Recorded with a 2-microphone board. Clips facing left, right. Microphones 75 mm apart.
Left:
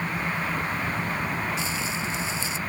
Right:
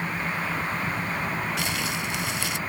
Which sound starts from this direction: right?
Crumpling, at 1.6 s.